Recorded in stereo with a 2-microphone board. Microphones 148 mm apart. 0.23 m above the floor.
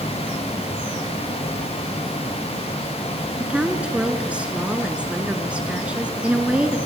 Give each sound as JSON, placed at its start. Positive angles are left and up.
{"t": 3.4, "sound": "a woman speaking", "side_deg": -5, "distance_m": 2.5}